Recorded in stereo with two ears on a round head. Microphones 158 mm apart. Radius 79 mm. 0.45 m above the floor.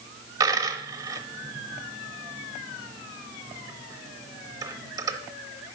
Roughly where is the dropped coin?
Centre.